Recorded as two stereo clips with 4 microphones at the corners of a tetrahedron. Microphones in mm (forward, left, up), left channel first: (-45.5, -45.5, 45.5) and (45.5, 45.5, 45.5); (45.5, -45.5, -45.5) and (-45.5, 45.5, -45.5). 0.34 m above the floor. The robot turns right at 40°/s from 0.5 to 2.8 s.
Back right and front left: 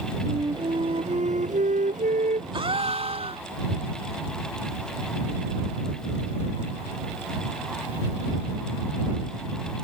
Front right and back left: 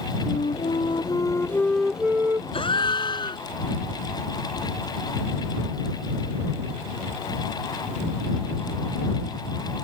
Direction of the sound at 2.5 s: 5° right.